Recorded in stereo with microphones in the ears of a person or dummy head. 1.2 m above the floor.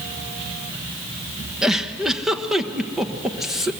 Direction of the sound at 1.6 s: Centre (ahead or behind).